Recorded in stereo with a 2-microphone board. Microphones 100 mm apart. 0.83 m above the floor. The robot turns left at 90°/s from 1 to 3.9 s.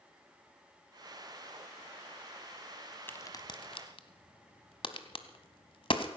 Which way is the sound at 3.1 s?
20° left (ahead or behind).